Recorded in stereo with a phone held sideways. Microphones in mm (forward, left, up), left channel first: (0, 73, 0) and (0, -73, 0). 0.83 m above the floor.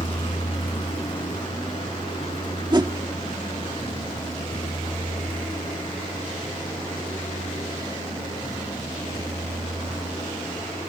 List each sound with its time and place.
0.0 s a vehicle: 40° left (ahead or behind); by 10.9 s 35° left (ahead or behind)
2.7 s a whoosh: 30° right (ahead or behind)